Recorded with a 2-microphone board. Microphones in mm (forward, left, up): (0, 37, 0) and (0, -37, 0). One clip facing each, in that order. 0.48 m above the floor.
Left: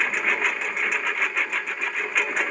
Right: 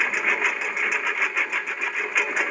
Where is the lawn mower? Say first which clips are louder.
Even; 5° right (ahead or behind).